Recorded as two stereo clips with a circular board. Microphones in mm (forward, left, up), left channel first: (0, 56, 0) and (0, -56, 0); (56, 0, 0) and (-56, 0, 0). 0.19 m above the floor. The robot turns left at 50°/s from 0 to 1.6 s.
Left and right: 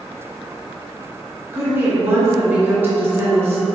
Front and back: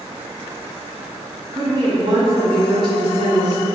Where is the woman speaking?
150° right, 1.8 m.